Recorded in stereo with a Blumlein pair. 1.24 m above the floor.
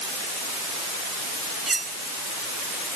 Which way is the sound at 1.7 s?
10° right.